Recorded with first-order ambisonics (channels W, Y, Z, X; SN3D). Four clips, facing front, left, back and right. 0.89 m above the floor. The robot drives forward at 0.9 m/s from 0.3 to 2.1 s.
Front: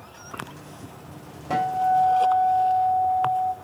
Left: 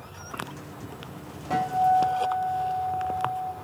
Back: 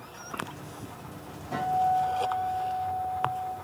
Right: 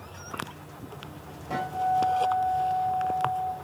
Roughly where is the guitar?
Ahead.